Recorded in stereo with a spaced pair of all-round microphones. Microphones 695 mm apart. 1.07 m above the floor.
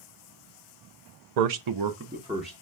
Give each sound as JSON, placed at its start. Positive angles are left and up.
{"t": 1.4, "sound": "a man speaking", "side_deg": -70, "distance_m": 0.6}